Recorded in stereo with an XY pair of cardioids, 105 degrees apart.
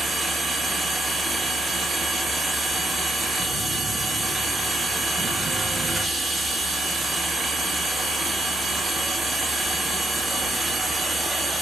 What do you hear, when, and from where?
0.0 s a machine running: 20° right, 1.4 m